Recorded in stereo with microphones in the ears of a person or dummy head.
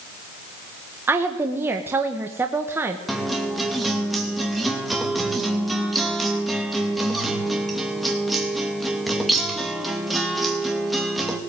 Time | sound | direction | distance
1.1 | a woman speaking | 10° right (ahead or behind) | 1.6 m
3.1 | a guitar | centre (ahead or behind) | 2.5 m